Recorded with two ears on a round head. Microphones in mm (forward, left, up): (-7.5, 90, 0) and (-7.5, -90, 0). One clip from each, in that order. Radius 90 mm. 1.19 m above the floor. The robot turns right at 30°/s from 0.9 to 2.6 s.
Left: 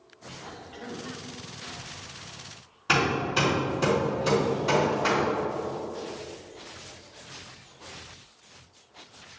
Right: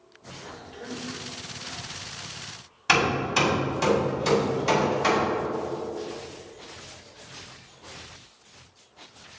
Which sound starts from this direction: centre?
A cough, at 0.4 s.